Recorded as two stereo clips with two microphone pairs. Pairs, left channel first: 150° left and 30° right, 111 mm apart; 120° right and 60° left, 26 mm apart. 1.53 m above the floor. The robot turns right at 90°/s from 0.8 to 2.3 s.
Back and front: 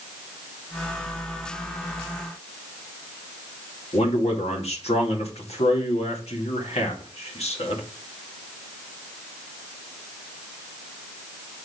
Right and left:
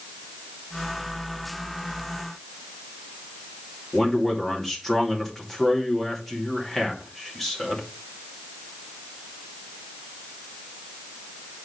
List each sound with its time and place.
3.9 s a man speaking: 160° left, 2 m